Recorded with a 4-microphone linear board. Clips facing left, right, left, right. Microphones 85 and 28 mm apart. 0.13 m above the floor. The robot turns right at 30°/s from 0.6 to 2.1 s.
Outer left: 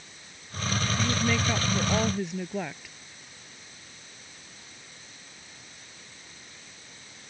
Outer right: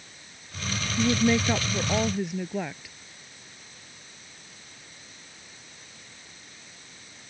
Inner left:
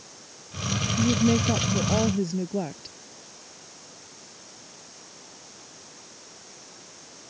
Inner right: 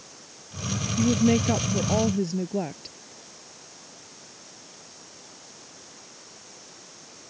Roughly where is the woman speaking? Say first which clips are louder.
Outer right 7 dB, inner right 1 dB; ahead right.